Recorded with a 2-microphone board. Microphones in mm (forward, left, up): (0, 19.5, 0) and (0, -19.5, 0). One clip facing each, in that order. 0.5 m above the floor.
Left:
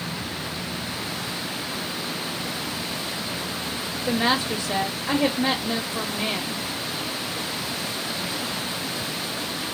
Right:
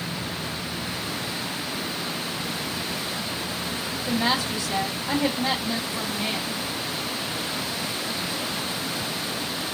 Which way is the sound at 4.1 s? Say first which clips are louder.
Left 2 dB; 35° left (ahead or behind).